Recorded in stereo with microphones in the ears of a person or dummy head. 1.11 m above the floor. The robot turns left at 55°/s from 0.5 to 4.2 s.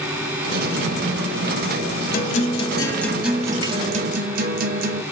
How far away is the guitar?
About 0.6 m.